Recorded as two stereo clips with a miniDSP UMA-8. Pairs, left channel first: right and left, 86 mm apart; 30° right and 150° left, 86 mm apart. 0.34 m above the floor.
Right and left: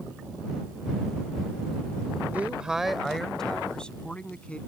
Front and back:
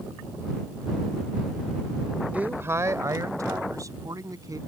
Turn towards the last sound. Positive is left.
turn(degrees=-165)